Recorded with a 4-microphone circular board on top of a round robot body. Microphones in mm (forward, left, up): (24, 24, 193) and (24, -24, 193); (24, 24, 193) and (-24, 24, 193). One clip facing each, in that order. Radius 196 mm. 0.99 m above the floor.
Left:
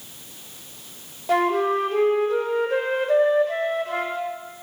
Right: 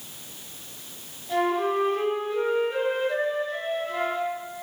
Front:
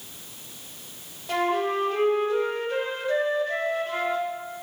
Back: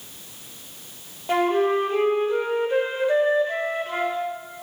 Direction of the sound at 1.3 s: 115° left.